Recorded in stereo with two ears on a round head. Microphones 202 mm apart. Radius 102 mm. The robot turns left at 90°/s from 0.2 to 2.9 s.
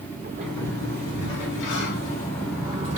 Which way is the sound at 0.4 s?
170° right.